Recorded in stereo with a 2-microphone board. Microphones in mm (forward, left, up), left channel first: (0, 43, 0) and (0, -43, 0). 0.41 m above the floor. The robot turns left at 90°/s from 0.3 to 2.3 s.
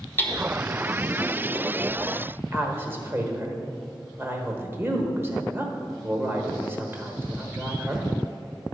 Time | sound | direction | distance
0.2 | hammering | 25° left (ahead or behind) | 1.0 m
2.5 | a woman speaking | 25° right (ahead or behind) | 1.1 m